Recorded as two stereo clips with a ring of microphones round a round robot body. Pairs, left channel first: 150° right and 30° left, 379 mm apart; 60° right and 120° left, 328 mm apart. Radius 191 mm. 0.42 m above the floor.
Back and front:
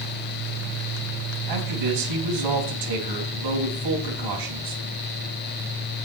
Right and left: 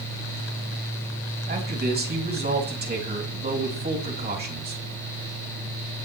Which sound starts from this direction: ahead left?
A man speaking, at 1.5 s.